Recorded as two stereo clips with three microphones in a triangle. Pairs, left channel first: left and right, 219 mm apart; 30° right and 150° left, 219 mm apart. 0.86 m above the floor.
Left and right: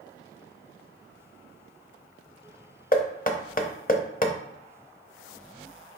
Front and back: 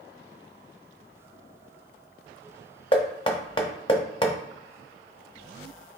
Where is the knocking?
35° left, 0.7 m.